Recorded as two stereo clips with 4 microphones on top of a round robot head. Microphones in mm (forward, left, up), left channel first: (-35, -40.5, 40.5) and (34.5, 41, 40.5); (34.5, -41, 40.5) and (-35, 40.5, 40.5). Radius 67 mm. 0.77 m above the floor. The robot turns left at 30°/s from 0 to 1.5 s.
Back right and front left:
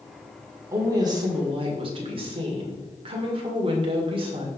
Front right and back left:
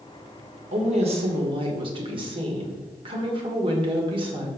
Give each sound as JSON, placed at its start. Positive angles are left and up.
{"t": 0.7, "sound": "a woman speaking", "azimuth_deg": 115, "distance_m": 2.0}